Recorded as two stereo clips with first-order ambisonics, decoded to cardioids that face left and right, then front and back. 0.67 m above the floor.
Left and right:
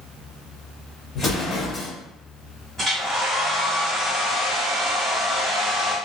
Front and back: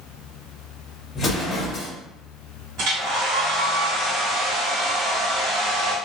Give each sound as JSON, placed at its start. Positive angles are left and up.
{"t": 1.1, "sound": "an explosion", "azimuth_deg": 50, "distance_m": 0.8}
{"t": 2.8, "sound": "a hair dryer", "azimuth_deg": -175, "distance_m": 1.5}